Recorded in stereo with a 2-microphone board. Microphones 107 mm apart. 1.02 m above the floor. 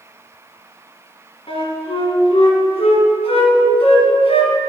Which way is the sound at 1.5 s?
65° left (ahead or behind).